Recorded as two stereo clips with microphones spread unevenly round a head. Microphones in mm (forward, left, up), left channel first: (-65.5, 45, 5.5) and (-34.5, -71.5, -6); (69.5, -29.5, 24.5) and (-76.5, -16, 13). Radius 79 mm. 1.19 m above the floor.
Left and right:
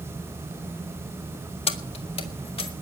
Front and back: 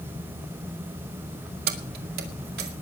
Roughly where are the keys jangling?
Behind left.